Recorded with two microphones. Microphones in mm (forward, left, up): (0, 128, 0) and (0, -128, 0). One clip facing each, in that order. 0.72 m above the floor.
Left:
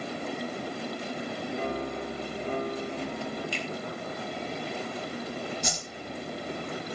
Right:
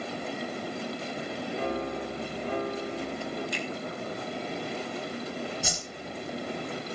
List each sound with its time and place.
1.5 s a piano: 20° left (ahead or behind), 8.5 m
3.5 s a finger snap: 30° left (ahead or behind), 5.5 m
5.6 s a whoosh: 5° right (ahead or behind), 3.5 m